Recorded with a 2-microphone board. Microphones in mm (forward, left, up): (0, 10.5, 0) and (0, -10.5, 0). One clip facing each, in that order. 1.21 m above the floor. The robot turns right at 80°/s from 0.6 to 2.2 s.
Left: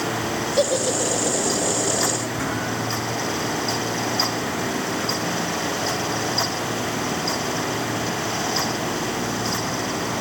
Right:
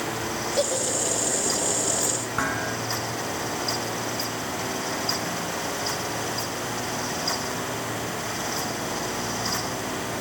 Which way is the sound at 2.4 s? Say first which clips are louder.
Left 1 dB; 70° right (ahead or behind).